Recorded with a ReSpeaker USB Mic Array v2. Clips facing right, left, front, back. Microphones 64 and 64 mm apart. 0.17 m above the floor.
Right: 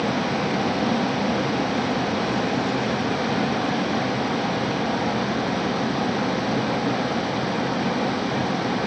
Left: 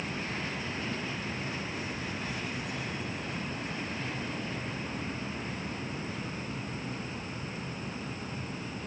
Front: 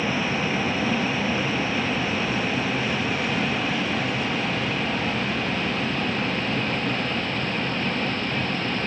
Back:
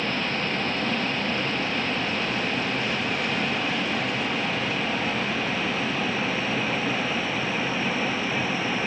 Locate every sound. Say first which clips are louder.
0.0 s a vehicle: right 13 dB, front 2 dB; 80° right; by 8.9 s 95° right